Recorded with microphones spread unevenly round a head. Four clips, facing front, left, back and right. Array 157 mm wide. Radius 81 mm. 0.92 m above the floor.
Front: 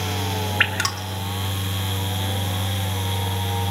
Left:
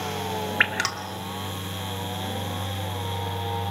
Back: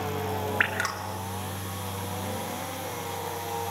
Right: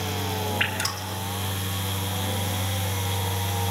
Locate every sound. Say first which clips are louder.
0.6 s dripping: left 3 dB, front 3 dB; 30° left, 2 m